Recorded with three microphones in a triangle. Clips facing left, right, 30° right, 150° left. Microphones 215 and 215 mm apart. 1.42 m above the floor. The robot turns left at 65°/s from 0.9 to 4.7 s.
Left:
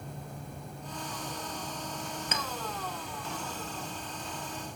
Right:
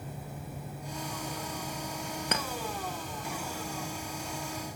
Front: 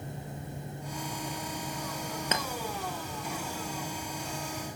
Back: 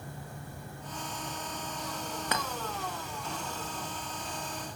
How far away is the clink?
About 0.8 m.